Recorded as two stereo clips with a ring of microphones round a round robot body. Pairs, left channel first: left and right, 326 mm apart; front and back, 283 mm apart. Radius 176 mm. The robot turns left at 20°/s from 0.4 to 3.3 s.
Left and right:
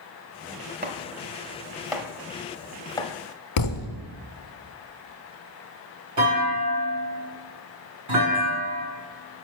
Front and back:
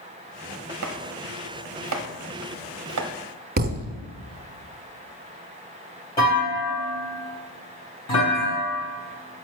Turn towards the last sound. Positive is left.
turn(degrees=-75)